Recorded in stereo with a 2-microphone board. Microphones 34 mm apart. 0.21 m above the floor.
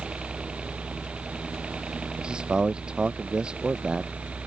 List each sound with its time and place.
0.0 s a helicopter: 25° right (ahead or behind); by 4.5 s 40° right (ahead or behind)
2.2 s a man speaking: 25° right (ahead or behind)